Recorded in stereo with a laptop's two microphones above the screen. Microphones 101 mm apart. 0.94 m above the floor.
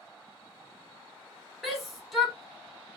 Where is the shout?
Centre (ahead or behind), 1.0 m.